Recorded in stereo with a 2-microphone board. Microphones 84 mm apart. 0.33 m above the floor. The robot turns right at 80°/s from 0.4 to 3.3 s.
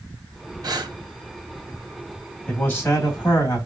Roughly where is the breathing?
Right.